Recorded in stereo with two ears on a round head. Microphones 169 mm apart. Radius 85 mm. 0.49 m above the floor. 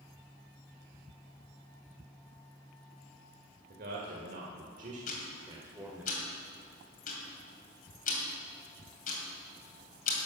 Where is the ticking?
45° left (ahead or behind), 2.5 m.